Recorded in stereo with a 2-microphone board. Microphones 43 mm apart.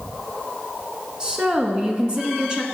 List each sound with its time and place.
1.2 s a woman speaking: 20° right (ahead or behind), 1.1 m